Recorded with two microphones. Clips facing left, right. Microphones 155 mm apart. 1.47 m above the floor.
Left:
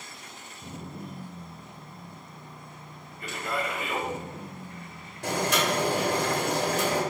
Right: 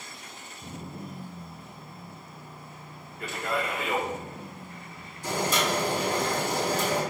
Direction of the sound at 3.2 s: 80° right.